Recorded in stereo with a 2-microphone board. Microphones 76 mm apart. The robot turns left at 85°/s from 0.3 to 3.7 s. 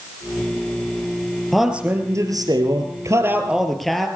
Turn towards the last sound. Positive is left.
turn(degrees=180)